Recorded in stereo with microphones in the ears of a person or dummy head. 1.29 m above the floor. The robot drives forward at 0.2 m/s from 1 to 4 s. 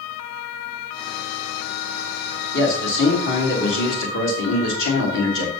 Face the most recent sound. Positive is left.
turn(degrees=75)  # may be behind; listen again after turning